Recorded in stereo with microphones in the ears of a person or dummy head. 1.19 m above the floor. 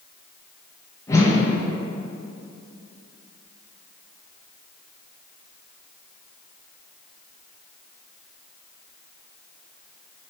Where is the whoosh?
20° left (ahead or behind), 1.0 m.